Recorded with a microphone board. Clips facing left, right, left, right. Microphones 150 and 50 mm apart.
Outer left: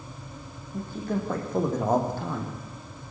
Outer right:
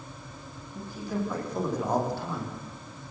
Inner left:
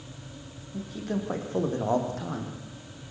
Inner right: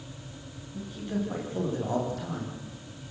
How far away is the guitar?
No guitar in this recording.